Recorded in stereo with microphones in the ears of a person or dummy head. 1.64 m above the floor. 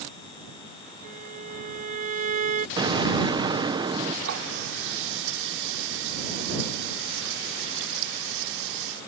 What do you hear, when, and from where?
1.0 s a violin: 50° right (ahead or behind)
2.8 s an explosion: 30° right (ahead or behind)
4.2 s a running tap: 70° right (ahead or behind)